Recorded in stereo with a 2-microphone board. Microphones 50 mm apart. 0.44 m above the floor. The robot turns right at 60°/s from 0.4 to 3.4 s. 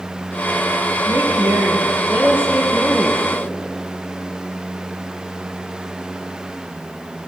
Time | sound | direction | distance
1.1 | a woman speaking | 105° right | 8 m